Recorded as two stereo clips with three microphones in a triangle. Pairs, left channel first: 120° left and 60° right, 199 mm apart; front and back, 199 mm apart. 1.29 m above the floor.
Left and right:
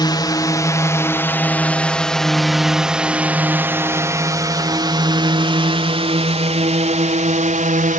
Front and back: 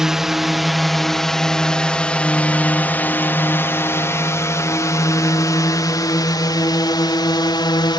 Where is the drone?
95° left; by 8.0 s 55° right.